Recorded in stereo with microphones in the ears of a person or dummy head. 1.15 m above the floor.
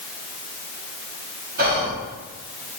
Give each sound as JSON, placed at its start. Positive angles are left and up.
{"t": 1.6, "sound": "whispering", "side_deg": -50, "distance_m": 1.3}